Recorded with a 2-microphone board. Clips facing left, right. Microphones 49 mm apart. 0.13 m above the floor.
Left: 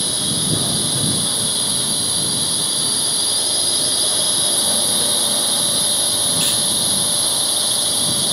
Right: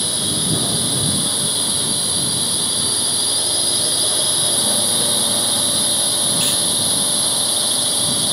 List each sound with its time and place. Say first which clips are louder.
0.0 s a drone: even; centre (ahead or behind)